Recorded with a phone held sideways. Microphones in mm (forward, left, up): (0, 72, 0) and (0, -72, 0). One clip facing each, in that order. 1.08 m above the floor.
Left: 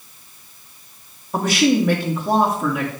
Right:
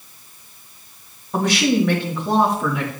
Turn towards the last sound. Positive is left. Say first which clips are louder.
# left 1 dB
turn(degrees=10)  # may be behind; listen again after turning